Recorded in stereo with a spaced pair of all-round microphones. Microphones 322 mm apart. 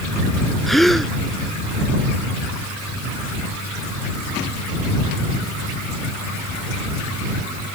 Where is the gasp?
Centre (ahead or behind).